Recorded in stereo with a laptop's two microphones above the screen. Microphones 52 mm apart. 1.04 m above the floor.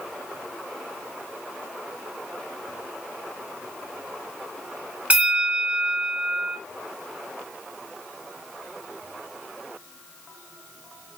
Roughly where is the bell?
Right.